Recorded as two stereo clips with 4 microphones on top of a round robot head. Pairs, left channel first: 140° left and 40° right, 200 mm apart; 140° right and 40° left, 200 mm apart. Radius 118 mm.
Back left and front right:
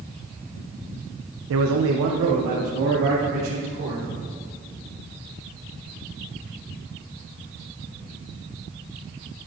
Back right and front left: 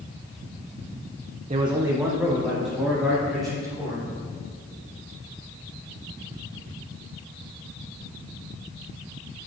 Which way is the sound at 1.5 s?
25° right.